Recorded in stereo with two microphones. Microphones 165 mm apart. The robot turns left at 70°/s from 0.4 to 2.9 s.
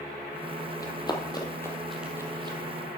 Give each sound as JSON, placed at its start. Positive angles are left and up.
{"t": 0.8, "sound": "running footsteps", "side_deg": 20, "distance_m": 1.7}